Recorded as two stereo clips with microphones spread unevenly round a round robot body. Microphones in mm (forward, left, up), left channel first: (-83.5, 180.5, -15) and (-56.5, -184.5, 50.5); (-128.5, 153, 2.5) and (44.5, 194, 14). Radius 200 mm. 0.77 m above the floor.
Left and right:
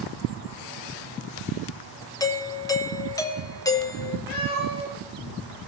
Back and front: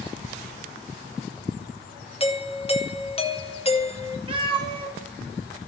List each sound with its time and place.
2.2 s a doorbell: 160° left, 1.9 m
4.3 s a cat meowing: 75° left, 9.5 m